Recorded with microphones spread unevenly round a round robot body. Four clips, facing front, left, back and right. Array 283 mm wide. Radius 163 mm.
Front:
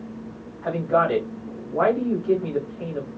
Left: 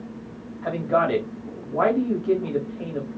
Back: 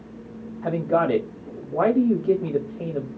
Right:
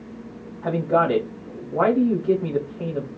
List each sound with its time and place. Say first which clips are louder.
0.6 s a man speaking: right 2 dB, even; straight behind, 2.5 m